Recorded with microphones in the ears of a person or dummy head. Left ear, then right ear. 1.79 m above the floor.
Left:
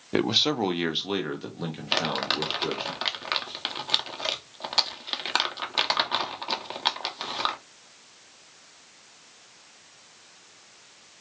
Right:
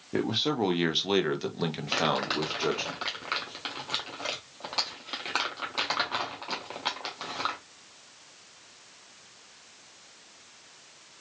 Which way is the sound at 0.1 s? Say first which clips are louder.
Left 5 dB; 45° left (ahead or behind).